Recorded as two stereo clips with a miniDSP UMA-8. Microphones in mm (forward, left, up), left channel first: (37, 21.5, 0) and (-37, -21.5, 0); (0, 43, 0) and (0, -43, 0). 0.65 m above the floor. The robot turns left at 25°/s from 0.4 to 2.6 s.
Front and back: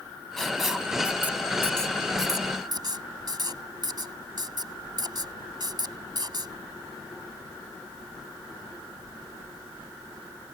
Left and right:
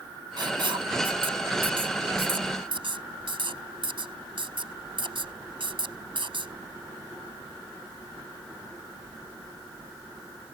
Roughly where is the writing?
Ahead right.